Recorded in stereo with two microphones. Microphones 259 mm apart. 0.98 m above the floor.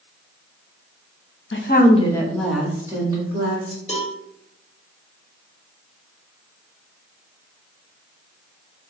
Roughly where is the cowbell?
Left.